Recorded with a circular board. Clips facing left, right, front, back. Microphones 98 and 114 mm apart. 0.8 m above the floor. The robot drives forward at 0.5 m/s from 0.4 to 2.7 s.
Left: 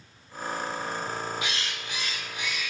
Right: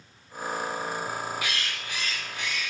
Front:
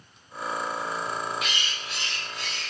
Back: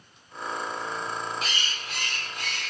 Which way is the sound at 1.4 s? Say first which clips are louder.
Even, front 1 dB; 145° left.